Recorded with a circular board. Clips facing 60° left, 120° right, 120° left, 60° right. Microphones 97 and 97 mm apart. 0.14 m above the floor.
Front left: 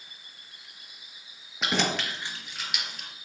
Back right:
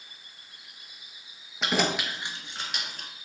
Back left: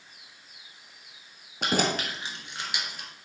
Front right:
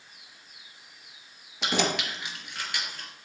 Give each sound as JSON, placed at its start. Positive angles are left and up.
{"t": 1.6, "sound": "keys jangling", "azimuth_deg": 150, "distance_m": 2.0}